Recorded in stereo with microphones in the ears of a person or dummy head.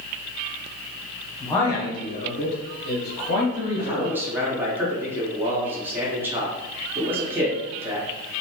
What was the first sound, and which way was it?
A man speaking, 5° left (ahead or behind).